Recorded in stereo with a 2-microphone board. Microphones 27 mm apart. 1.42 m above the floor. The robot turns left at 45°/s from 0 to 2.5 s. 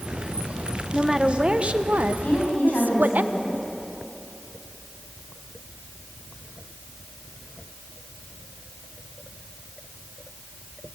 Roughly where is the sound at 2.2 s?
Left.